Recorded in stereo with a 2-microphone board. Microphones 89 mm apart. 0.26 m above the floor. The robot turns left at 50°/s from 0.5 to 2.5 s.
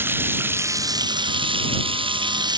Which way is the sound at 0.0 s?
25° right.